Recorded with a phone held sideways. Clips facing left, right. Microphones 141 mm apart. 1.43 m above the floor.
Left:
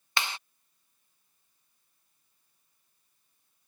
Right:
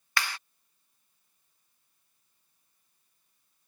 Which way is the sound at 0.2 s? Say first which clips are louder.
Even; 20° left (ahead or behind).